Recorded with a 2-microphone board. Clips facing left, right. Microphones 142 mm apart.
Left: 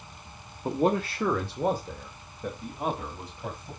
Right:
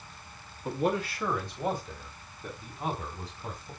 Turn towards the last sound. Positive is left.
turn(degrees=70)  # may be behind; listen again after turning